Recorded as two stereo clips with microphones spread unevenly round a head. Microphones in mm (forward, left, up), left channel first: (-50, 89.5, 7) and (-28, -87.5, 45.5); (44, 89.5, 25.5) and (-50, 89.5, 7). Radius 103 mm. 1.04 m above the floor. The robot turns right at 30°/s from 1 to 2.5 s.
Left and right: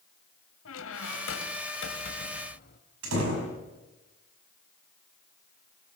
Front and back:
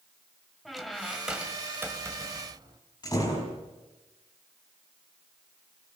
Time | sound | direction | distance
0.7 | a squeak | 85° left | 2.5 m
3.0 | a door slam | 70° right | 6 m